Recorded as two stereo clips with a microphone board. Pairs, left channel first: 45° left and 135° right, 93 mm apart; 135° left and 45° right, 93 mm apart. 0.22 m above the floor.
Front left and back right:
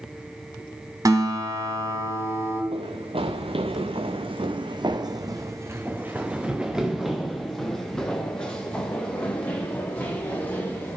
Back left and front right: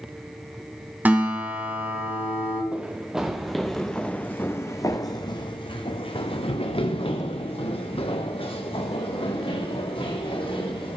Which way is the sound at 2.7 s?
120° right.